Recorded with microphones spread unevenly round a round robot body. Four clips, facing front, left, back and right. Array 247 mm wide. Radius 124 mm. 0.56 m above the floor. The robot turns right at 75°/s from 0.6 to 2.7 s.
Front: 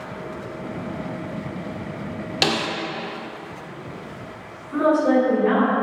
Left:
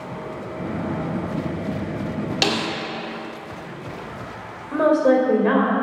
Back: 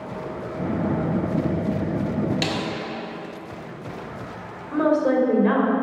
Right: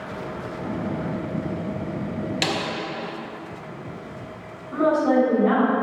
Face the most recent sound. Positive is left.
turn(degrees=115)